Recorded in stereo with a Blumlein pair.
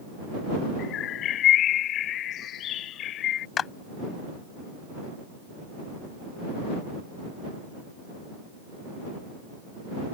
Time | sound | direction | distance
0.8 | a bird | 30° left | ?
3.6 | a clap | 25° left | ?